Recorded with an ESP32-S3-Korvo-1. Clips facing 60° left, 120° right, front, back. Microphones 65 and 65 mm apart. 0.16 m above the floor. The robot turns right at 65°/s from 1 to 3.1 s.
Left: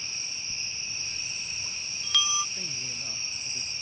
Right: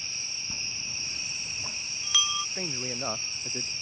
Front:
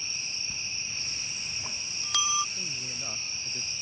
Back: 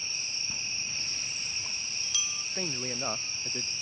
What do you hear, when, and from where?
0.5 s a bell: 110° right; by 2.5 s 15° right
2.5 s a man speaking: 165° right; by 3.7 s 130° right